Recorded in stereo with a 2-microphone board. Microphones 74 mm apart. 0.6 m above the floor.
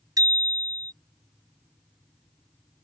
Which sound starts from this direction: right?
A bicycle bell, at 0.2 s.